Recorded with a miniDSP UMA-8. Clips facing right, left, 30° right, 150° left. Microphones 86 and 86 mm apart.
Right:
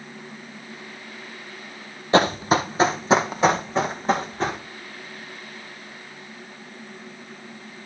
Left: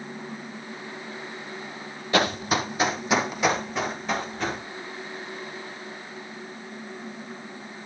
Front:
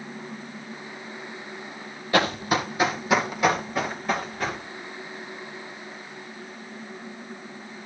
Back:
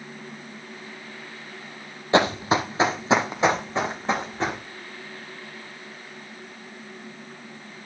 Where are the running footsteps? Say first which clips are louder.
Right 5 dB, back 3 dB; 145° right, 1.1 m.